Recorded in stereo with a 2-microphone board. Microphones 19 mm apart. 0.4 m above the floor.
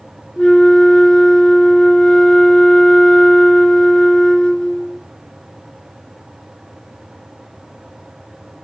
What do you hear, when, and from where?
0.4 s a flute: 60° left (ahead or behind), 0.9 m